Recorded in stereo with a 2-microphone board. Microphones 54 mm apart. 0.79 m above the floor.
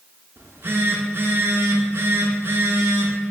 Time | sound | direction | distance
0.4 | a phone buzzing | 50° right (ahead or behind) | 0.5 m